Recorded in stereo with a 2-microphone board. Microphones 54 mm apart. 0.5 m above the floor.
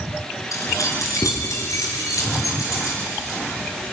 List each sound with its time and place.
0.5 s keys jangling: 80° left, 4.5 m